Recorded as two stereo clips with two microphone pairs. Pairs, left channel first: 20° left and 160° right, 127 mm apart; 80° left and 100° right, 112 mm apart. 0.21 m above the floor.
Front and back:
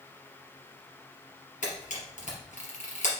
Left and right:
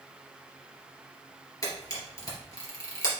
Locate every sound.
1.6 s a camera shutter: 25° left, 3 m